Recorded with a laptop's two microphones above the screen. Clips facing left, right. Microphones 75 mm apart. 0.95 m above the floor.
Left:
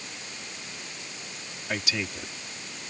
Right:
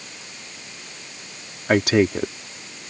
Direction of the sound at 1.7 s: 60° right (ahead or behind).